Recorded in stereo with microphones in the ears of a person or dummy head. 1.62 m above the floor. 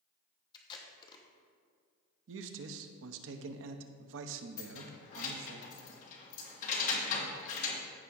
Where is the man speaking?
70° right (ahead or behind), 0.7 m.